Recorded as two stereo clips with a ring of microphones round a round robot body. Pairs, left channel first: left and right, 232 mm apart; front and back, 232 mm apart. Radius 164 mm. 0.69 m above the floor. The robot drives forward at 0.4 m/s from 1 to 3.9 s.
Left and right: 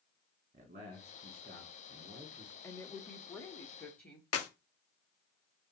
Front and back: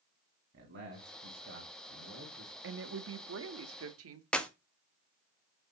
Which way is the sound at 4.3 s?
85° left.